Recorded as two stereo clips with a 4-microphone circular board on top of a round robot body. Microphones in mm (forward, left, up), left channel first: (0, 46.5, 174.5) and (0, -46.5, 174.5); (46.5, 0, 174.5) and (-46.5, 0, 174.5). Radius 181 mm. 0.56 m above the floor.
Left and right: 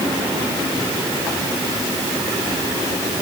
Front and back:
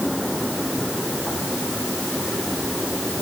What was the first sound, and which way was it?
Only background noise.